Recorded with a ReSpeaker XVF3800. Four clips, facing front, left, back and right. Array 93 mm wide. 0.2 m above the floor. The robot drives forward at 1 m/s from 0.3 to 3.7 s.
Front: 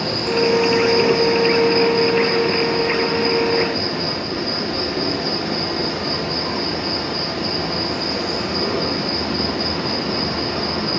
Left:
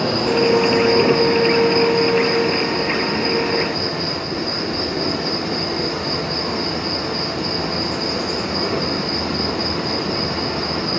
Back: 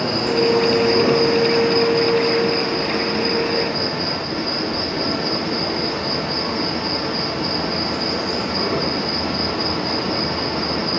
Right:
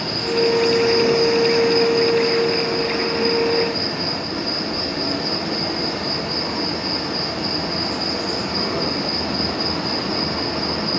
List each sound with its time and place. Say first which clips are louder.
0.0 s an insect: left 3 dB, back 1 dB; 120° left, 1.6 m; by 11.0 s 160° left, 4.5 m